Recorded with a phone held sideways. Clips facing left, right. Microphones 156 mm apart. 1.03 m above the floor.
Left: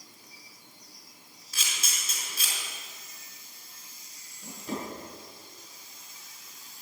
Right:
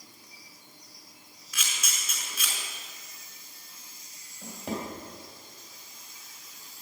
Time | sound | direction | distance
1.5 | a camera shutter | 30° left (ahead or behind) | 5 m
4.4 | a drawer | 80° right | 3.5 m